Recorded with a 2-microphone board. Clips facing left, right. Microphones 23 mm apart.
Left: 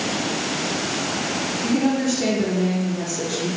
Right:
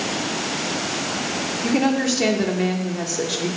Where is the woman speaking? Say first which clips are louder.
Right 1 dB; 40° right (ahead or behind), 1.1 m.